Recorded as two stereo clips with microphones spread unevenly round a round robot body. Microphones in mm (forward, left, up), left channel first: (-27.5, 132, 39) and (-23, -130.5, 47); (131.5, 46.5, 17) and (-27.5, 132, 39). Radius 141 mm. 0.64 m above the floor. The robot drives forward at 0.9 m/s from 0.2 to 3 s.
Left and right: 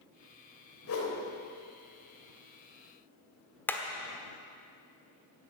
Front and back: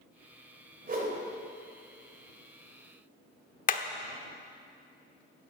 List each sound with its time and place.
0.9 s a whoosh: 115° left, 3.5 m
3.7 s hammering: 10° left, 1.0 m